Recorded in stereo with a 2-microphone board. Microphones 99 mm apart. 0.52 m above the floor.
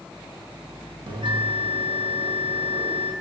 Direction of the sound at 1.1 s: 55° right (ahead or behind).